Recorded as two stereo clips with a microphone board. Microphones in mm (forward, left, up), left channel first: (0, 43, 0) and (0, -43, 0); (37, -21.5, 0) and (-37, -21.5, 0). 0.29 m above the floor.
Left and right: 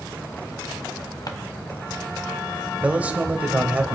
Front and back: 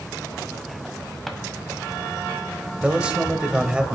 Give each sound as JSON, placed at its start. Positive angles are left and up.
{"t": 1.3, "sound": "a drawer", "azimuth_deg": 90, "distance_m": 1.1}
{"t": 2.8, "sound": "a man speaking", "azimuth_deg": -130, "distance_m": 1.1}